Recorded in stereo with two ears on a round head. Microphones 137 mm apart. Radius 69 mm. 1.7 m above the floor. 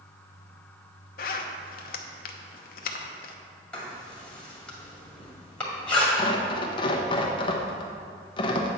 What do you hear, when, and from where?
1.2 s a zipper: 65° left (ahead or behind), 0.8 m
3.7 s writing: 5° left (ahead or behind), 2 m
6.2 s tearing paper: 30° left (ahead or behind), 1.0 m